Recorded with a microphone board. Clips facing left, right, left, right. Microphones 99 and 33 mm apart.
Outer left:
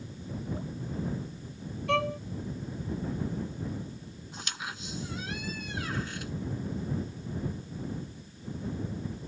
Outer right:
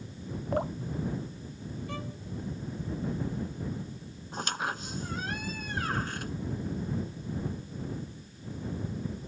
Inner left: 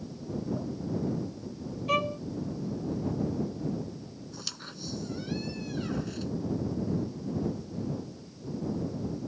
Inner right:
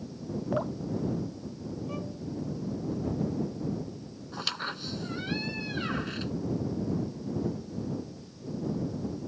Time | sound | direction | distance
0.5 | dripping | 70° right (ahead or behind) | ?
1.9 | a violin | 75° left (ahead or behind) | ?
4.3 | a squeak | 45° right (ahead or behind) | ?